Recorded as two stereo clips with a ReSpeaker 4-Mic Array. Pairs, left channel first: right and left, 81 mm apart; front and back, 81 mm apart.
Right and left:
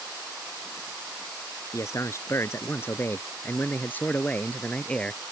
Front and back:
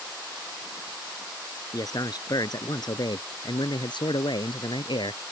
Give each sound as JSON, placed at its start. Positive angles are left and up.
{"t": 1.7, "sound": "a man speaking", "azimuth_deg": -40}